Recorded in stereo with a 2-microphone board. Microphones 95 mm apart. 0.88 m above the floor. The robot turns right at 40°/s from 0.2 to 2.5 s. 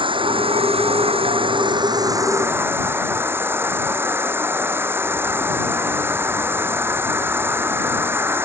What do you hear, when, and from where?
0.0 s an insect: 115° right; by 8.4 s 25° right